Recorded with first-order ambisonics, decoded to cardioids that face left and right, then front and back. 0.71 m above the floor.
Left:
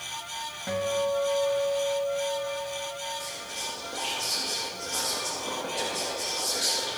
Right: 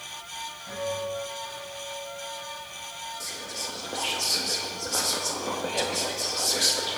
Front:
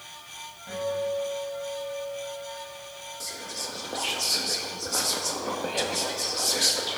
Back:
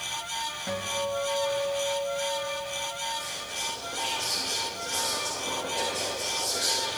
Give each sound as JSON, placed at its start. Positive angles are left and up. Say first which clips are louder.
{"t": 0.7, "sound": "a guitar", "louder": "left 5 dB, front 4 dB", "azimuth_deg": 135, "distance_m": 1.3}
{"t": 3.2, "sound": "whispering", "louder": "even, back 2 dB", "azimuth_deg": -40, "distance_m": 0.5}